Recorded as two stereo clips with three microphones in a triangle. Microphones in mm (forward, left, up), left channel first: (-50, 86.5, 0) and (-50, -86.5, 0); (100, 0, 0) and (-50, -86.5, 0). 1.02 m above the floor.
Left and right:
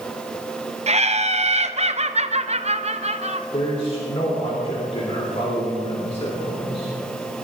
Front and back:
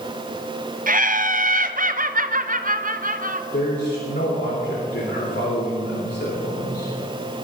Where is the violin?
No violin in this recording.